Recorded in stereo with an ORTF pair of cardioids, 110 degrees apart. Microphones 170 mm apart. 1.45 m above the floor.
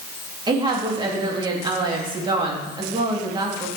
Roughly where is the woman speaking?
Ahead right.